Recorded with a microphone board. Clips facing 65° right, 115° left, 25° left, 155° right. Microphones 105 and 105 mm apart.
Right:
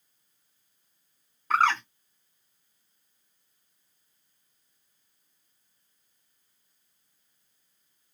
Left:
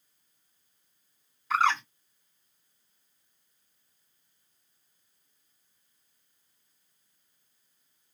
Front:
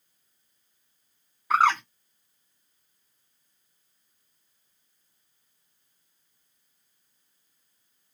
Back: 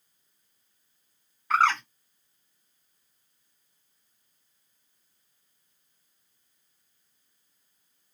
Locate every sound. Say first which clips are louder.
1.5 s a bird: right 2 dB, front 2 dB; 55° right, 1.4 m